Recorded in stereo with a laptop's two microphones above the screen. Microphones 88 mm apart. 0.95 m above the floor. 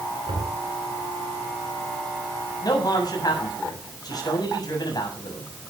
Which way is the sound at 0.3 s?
80° right.